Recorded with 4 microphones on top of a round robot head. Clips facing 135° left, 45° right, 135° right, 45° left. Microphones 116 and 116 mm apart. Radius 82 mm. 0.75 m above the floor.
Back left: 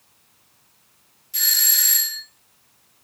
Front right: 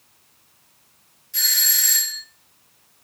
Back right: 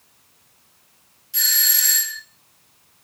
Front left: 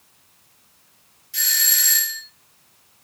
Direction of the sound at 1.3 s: 170° right.